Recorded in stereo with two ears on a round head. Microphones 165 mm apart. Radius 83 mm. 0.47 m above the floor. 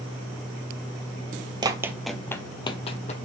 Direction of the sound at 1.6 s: 25° right (ahead or behind).